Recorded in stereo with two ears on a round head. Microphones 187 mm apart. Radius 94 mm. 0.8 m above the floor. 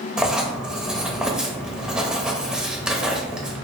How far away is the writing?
About 0.7 m.